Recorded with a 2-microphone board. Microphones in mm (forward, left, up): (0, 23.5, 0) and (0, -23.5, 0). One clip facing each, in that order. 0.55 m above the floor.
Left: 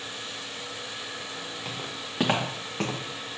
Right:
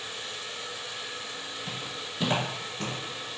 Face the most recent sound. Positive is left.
turn(degrees=60)  # may be behind; listen again after turning